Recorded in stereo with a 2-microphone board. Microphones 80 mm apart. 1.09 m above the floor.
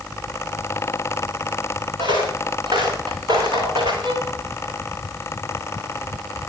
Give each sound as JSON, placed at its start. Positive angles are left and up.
{"t": 2.0, "sound": "footsteps", "side_deg": -70, "distance_m": 7.5}
{"t": 4.0, "sound": "a violin", "side_deg": -70, "distance_m": 8.5}